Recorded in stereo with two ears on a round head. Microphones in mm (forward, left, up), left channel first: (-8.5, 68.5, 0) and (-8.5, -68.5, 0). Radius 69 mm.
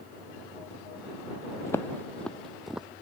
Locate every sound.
1.7 s footsteps: 20° left (ahead or behind); by 2.9 s 5° right (ahead or behind)